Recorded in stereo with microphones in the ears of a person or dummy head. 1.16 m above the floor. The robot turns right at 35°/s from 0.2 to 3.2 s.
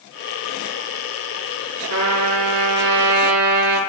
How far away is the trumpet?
About 7.5 m.